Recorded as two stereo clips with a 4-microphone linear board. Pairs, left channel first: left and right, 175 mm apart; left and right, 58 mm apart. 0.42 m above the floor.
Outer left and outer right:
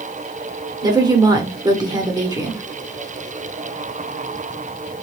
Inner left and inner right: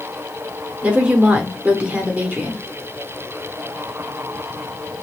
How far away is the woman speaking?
About 0.9 m.